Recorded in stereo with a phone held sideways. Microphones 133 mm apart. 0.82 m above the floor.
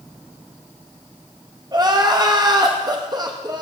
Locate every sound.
1.7 s crying: 30° right (ahead or behind), 0.9 m